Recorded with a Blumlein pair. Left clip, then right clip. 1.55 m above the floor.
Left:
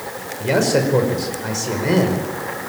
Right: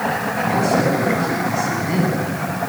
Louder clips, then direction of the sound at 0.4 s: Left 2 dB; 55° left.